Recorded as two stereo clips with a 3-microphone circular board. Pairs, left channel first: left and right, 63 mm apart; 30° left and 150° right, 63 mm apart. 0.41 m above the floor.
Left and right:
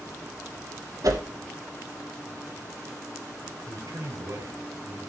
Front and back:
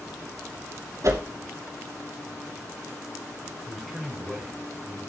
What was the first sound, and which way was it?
A whoosh, 115° right.